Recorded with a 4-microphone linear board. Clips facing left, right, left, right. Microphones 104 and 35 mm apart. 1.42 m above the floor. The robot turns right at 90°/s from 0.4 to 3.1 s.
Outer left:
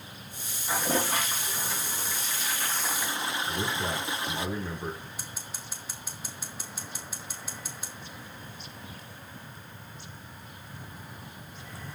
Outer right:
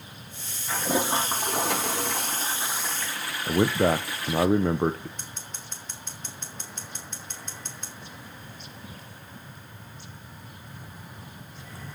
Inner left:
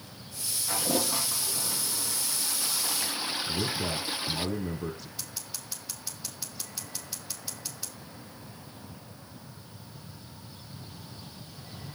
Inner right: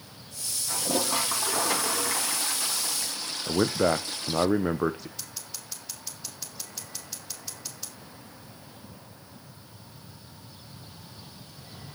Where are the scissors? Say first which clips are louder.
Even, even; 5° left (ahead or behind), 3 m.